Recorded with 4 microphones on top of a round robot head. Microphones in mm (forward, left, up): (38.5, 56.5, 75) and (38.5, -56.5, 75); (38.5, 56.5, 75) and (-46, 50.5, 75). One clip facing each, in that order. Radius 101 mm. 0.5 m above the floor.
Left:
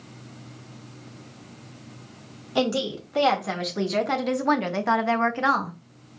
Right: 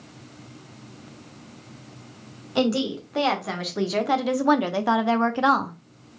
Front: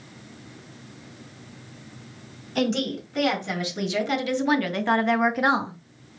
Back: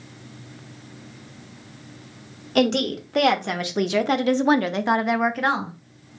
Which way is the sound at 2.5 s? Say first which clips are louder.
Right 2 dB, back 4 dB; 175° left.